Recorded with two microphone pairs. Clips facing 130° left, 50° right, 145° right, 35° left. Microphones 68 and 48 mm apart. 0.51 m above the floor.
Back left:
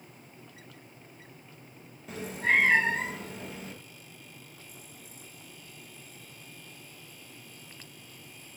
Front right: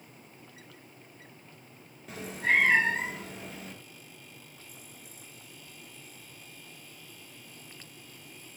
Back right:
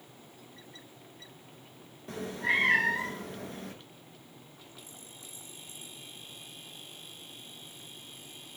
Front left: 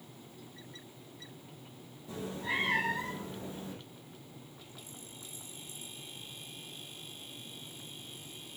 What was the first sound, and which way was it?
A cat meowing, 140° right.